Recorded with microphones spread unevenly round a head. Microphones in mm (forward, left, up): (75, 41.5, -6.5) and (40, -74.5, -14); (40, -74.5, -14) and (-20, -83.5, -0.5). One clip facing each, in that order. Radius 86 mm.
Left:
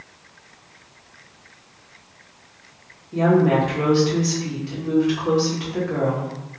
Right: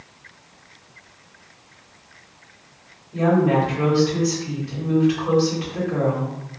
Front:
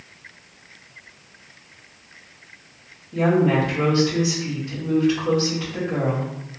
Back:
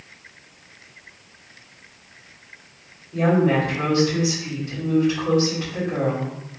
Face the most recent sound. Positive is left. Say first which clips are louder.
# left 1 dB, even
turn(degrees=80)